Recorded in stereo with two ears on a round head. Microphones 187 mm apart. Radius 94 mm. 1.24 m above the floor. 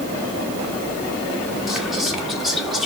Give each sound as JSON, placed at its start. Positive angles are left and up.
{"t": 1.7, "sound": "whispering", "side_deg": 0, "distance_m": 1.3}